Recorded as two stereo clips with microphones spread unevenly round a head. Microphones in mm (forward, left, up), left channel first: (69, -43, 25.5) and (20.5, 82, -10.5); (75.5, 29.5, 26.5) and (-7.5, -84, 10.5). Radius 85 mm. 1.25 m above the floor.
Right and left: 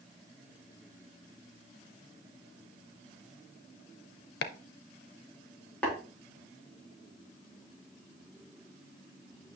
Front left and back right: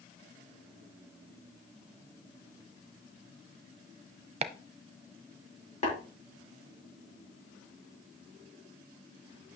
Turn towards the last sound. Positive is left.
turn(degrees=10)